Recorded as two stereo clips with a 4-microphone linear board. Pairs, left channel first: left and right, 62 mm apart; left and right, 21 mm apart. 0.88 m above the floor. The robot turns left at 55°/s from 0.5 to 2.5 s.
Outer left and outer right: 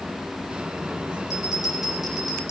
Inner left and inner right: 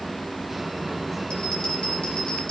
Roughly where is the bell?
Behind left.